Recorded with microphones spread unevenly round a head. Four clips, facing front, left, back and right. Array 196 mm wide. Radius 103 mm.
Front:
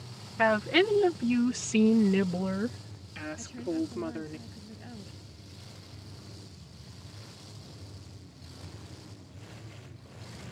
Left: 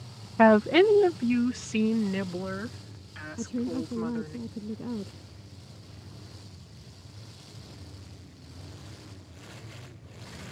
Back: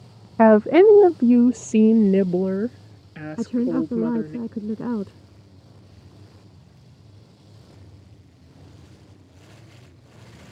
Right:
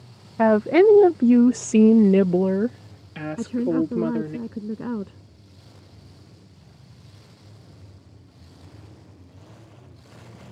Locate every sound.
0.4 s a woman speaking: 175° left; by 4.4 s 115° right
3.4 s a woman speaking: 160° right